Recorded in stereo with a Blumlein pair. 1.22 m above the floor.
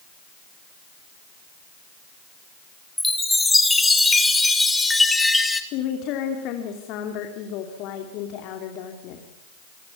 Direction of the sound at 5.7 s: 40° left.